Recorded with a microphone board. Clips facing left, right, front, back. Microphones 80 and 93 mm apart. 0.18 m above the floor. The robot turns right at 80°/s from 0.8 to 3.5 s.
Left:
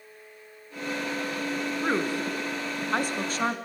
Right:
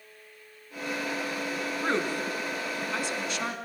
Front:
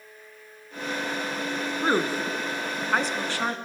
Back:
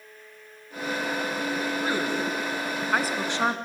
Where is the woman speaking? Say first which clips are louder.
Left 1 dB, front 6 dB; 5° right, 1.9 m; by 3.5 s 130° left, 1.9 m.